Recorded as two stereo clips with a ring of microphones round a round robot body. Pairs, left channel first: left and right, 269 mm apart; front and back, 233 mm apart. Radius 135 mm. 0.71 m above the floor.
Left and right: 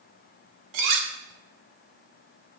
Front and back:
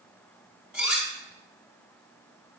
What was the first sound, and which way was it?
Cutlery clinking, 95° right.